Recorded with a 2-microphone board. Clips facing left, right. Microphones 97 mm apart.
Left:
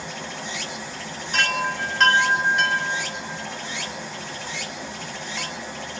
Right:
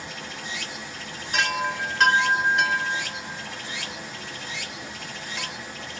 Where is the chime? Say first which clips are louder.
Left 1 dB; centre (ahead or behind), 0.6 m.